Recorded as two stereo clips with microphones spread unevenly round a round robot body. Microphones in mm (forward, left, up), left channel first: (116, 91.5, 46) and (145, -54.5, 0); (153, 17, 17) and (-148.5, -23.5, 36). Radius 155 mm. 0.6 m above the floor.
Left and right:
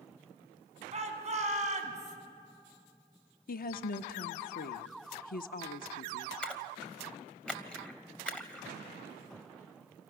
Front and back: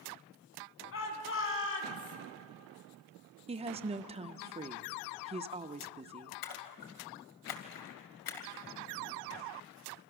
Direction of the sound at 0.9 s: 40° right.